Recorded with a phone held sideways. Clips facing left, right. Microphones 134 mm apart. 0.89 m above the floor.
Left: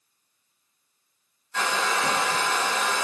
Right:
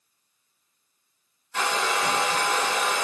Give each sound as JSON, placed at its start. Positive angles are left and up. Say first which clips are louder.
{"t": 1.5, "sound": "a hair dryer", "louder": "even", "side_deg": -15, "distance_m": 2.0}